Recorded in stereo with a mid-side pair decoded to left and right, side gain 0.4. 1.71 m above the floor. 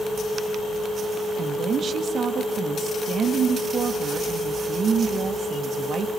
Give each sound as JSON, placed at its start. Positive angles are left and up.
{"t": 1.4, "sound": "a woman speaking", "azimuth_deg": -50, "distance_m": 2.5}